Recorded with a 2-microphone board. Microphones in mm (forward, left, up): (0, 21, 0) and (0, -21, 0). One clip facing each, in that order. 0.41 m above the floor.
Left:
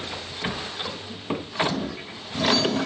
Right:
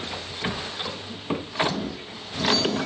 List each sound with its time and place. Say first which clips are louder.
1.7 s a toilet flushing: left 1 dB; 40° left (ahead or behind), 1.3 m